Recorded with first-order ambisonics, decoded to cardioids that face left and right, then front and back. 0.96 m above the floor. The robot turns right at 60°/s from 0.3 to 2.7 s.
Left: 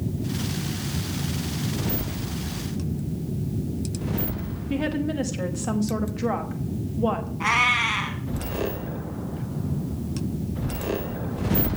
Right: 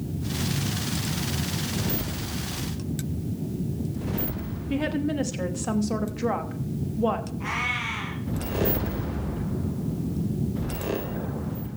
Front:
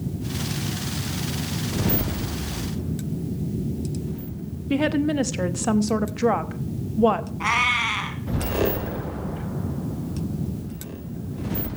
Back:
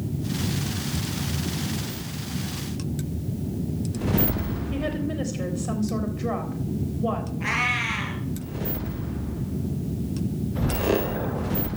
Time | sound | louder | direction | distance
4.7 | a woman speaking | even, front 8 dB | 5° right | 1.0 m
7.4 | a cat meowing | left 10 dB, front 3 dB | 40° left | 2.5 m